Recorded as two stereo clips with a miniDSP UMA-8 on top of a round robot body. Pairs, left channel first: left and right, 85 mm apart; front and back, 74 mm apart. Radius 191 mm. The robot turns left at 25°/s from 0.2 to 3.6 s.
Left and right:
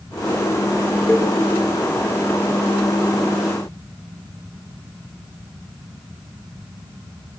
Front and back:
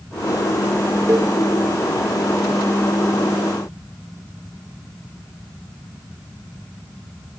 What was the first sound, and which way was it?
A cowbell, 140° left.